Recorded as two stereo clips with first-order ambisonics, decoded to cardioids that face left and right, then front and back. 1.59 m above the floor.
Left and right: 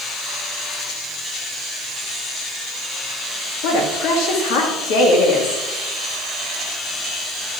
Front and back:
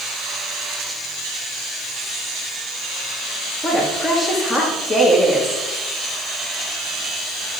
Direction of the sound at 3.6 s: 75° left.